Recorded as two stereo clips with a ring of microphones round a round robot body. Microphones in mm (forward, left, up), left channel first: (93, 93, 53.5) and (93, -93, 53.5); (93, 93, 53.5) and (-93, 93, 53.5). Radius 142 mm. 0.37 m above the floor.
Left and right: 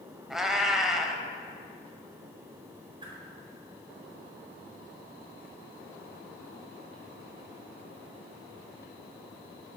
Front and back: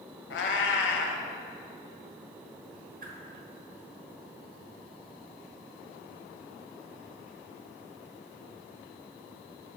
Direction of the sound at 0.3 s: Straight ahead.